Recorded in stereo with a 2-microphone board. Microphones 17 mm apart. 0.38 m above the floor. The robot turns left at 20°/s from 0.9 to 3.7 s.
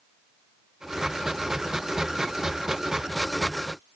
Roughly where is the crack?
No crack in this recording.